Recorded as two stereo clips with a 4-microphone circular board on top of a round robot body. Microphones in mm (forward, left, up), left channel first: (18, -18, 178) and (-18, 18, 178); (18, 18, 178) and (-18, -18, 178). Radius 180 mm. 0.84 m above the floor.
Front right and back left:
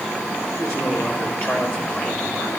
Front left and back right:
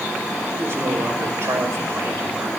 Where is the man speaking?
90° right, 5.5 m; by 2.5 s 115° right, 5.5 m.